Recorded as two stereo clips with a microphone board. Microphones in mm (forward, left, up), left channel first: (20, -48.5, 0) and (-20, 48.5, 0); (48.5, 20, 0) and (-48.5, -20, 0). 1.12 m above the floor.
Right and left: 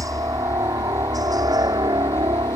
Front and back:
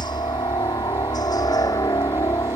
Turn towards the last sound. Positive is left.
turn(degrees=75)